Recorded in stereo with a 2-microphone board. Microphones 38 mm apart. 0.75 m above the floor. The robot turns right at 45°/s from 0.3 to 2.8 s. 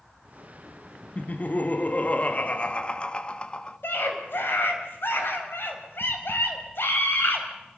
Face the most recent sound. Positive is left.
turn(degrees=75)  # may be behind; listen again after turning